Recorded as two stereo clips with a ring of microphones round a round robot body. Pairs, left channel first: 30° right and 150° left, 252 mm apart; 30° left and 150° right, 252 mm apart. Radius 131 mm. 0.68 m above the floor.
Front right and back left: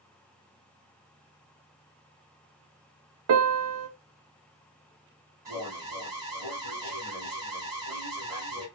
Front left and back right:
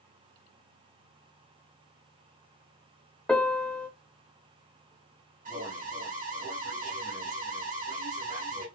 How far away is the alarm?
About 1.9 m.